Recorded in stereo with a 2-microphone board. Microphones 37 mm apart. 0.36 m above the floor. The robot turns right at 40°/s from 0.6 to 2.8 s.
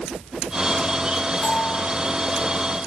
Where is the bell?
25° left (ahead or behind), 3.5 m; by 1.8 s 40° left (ahead or behind), 3.5 m.